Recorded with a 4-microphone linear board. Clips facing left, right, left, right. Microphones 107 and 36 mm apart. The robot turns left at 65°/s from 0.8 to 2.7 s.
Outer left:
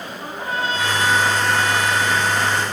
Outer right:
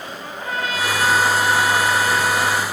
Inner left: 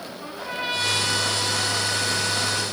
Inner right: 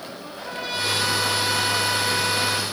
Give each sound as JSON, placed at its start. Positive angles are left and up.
{"t": 0.2, "sound": "a trumpet", "azimuth_deg": 30, "distance_m": 2.5}